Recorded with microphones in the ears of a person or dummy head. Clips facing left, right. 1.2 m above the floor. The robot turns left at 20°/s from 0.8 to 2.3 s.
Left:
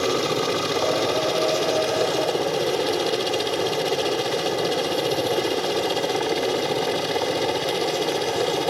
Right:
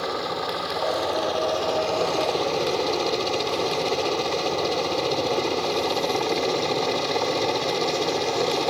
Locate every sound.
0.0 s a helicopter: 45° left (ahead or behind); by 8.7 s 10° left (ahead or behind)